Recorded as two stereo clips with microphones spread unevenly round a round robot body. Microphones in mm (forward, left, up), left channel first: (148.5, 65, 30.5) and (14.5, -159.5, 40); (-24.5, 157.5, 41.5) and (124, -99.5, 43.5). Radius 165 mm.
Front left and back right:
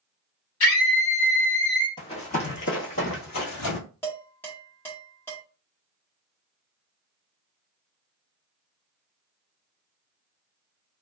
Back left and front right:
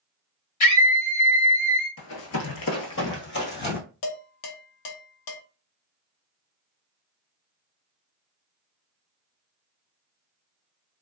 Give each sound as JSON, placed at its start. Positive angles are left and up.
{"t": 0.6, "sound": "a scream", "azimuth_deg": 110, "distance_m": 1.8}
{"t": 2.0, "sound": "running footsteps", "azimuth_deg": 135, "distance_m": 0.8}
{"t": 4.0, "sound": "dishes clattering", "azimuth_deg": 140, "distance_m": 0.8}